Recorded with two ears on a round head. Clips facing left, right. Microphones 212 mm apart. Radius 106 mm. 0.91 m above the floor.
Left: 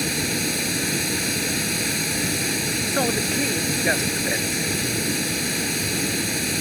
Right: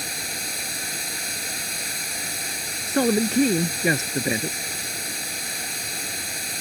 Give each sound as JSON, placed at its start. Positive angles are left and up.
{"t": 0.0, "sound": "running water", "side_deg": 60}
{"t": 2.9, "sound": "a man speaking", "side_deg": -90}